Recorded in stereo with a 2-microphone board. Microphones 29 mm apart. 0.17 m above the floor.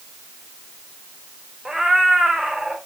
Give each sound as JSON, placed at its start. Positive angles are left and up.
{"t": 1.6, "sound": "a cat meowing", "side_deg": -20, "distance_m": 2.5}